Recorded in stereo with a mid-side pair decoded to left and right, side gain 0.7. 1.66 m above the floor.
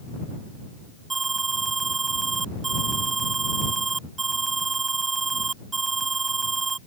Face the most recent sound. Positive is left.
turn(degrees=-20)